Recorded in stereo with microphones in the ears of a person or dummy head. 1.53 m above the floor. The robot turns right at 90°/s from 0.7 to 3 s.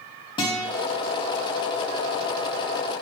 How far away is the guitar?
About 0.6 m.